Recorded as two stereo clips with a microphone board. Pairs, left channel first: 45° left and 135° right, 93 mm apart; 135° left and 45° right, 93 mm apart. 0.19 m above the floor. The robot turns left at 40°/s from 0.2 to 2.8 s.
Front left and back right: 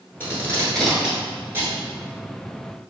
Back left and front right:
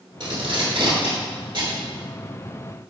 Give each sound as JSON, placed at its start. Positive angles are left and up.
{"t": 0.2, "sound": "tape being pulled", "azimuth_deg": -15, "distance_m": 1.0}